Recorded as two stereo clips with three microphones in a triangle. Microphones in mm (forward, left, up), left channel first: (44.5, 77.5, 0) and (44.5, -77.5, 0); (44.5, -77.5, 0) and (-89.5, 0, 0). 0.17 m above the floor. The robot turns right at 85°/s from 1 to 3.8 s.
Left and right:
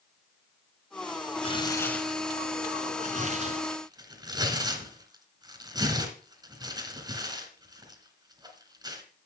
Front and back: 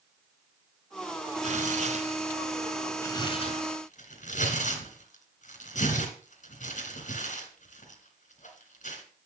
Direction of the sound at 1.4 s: 125° left.